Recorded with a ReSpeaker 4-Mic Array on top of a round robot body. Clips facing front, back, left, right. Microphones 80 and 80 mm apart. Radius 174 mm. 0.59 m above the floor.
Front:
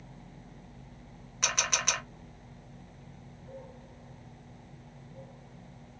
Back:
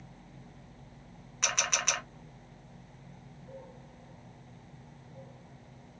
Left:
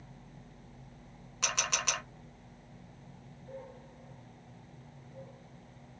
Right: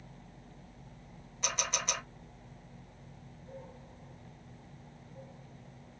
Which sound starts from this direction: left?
A camera shutter, at 1.4 s.